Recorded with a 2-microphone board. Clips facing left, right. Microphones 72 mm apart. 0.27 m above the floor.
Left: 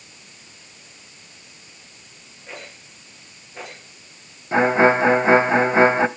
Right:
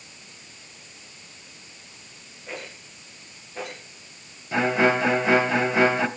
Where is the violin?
30° left (ahead or behind), 0.6 m.